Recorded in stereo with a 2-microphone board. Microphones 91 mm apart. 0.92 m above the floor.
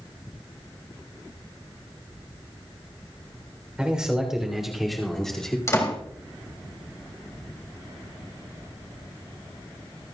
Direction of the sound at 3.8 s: 10° right (ahead or behind).